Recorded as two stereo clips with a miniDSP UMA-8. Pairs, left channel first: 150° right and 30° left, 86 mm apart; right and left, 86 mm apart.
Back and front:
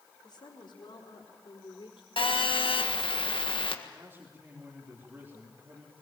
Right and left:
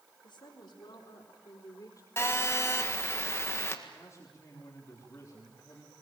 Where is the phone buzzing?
150° right, 1.8 m.